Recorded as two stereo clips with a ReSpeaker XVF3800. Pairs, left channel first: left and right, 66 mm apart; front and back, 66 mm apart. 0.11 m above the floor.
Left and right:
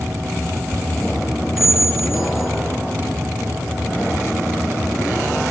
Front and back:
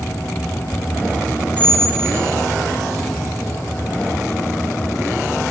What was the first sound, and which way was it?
A squeak, 15° right.